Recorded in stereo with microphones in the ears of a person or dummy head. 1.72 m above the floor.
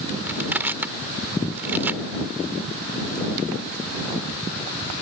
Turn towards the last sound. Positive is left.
turn(degrees=-15)  # may be behind; listen again after turning